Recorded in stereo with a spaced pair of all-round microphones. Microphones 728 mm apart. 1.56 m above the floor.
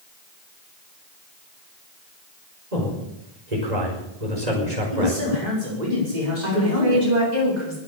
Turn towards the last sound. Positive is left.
turn(degrees=-70)  # may be behind; listen again after turning